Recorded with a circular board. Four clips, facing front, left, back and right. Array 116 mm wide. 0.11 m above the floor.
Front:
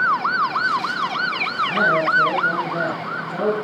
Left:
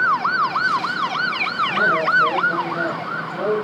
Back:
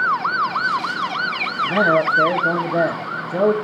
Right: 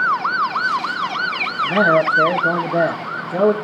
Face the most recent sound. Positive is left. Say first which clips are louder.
# right 5 dB, back 3 dB
turn(degrees=-115)